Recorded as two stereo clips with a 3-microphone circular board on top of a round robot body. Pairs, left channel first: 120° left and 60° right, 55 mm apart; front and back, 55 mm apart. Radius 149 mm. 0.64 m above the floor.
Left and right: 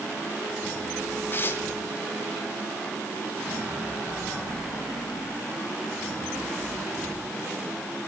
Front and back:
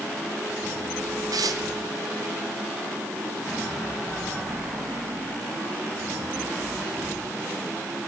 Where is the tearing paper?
175° left, 1.2 m.